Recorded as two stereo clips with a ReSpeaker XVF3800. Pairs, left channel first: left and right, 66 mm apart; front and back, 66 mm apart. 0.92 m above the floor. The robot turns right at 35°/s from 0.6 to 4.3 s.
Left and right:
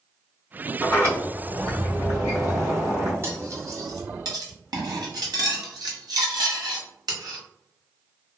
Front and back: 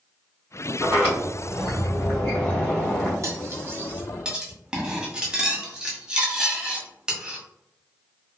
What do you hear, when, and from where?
0.8 s a sliding door: 125° right, 2.0 m; by 3.1 s 45° right, 2.0 m
3.2 s cutlery clinking: 140° right, 0.8 m; by 7.4 s 100° right, 0.8 m